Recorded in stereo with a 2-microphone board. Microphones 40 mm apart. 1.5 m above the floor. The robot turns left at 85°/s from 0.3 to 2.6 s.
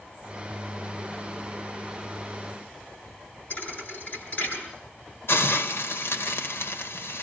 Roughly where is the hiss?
Left.